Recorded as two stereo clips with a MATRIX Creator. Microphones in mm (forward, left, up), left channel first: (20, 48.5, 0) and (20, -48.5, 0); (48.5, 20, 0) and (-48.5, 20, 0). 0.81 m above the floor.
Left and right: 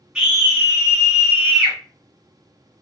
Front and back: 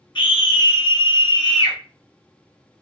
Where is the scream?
10° right, 1.2 m.